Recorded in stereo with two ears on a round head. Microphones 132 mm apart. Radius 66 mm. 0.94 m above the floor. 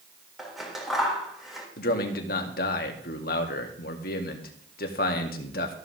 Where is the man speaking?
65° left (ahead or behind), 2.5 m.